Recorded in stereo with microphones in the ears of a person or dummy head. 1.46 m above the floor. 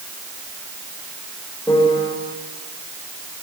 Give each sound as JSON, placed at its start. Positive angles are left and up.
{"t": 1.7, "sound": "a piano", "side_deg": 15, "distance_m": 5.5}